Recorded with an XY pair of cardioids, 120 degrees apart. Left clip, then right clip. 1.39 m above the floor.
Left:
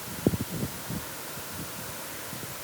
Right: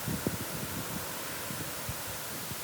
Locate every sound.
Only background noise.